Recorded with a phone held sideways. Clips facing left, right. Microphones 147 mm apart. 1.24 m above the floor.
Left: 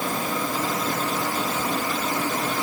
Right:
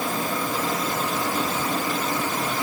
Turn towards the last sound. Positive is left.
No sound to turn to.